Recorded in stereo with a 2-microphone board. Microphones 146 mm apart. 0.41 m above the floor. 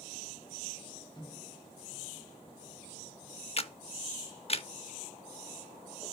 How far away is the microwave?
About 1.4 m.